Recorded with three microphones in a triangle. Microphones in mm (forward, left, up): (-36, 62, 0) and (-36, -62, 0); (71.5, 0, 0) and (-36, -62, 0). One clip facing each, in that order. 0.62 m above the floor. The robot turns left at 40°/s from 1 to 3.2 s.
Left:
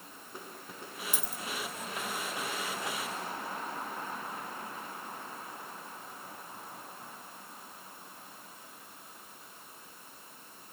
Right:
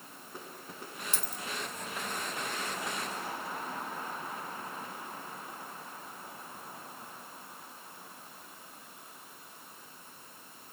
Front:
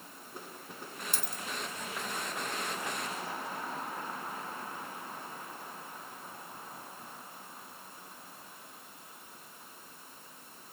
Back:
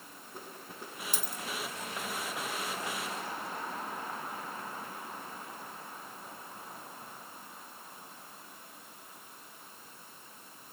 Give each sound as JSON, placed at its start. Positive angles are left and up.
{"t": 1.1, "sound": "a dropped coin", "azimuth_deg": -105, "distance_m": 1.1}